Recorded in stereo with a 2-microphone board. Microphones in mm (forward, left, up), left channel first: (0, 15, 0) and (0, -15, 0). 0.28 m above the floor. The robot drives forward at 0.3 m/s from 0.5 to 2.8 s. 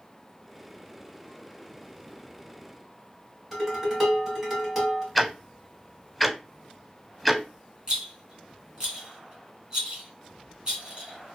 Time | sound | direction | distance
3.5 | dishes clattering | 10° right (ahead or behind) | 1.5 m
5.2 | ticking | 5° left (ahead or behind) | 0.5 m
7.9 | a rattle | 25° right (ahead or behind) | 1.3 m